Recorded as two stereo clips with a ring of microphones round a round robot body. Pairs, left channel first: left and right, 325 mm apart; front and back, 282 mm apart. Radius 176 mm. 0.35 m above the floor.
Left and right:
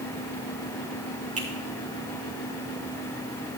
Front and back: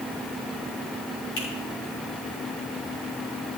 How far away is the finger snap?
About 5.5 m.